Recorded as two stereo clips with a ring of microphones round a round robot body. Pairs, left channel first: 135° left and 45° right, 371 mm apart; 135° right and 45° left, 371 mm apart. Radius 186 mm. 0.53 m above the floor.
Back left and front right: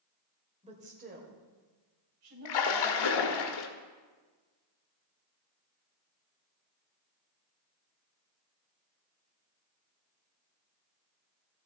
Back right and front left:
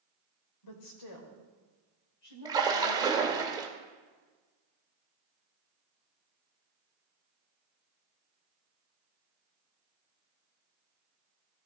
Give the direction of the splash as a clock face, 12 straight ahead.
8 o'clock.